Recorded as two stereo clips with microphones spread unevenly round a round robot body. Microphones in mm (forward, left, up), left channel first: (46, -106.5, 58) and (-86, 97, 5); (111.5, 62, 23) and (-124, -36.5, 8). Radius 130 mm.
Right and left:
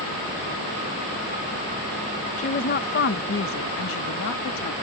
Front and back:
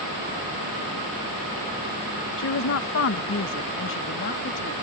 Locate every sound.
2.4 s a woman speaking: 10° left; by 4.7 s 25° right